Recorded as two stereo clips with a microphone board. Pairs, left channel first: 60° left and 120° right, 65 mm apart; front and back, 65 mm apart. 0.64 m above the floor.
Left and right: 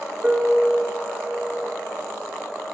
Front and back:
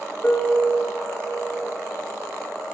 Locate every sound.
0.2 s a piano: 60° right, 1.5 m